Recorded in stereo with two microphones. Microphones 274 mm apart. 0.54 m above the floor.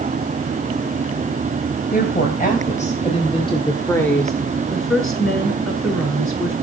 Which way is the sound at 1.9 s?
30° left (ahead or behind).